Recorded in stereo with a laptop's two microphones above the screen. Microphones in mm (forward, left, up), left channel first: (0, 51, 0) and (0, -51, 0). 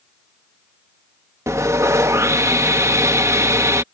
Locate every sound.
1.5 s sawing: 30° right (ahead or behind)